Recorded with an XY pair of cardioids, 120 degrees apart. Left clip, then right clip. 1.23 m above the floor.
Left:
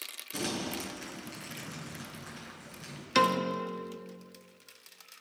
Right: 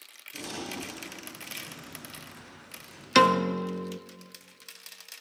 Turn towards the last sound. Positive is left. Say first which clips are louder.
# right 5 dB
turn(degrees=-35)